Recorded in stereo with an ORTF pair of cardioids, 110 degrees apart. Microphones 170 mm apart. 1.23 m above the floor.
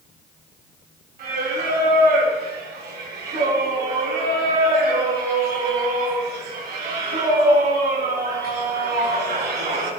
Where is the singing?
65° right, 7 m.